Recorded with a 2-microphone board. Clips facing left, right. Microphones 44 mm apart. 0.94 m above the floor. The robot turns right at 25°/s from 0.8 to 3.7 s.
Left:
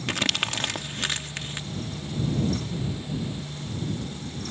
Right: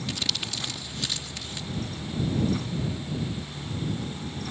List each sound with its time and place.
0.1 s crumpling: 60° left (ahead or behind); by 1.7 s 40° left (ahead or behind)